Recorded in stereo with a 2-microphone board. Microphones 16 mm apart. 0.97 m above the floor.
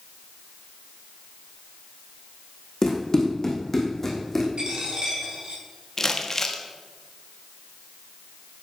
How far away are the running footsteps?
About 3.5 m.